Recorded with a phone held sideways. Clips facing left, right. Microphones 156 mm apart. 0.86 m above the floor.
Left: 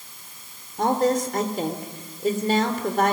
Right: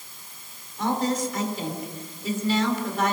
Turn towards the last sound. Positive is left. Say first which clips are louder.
# left 4 dB
turn(degrees=55)  # may be behind; listen again after turning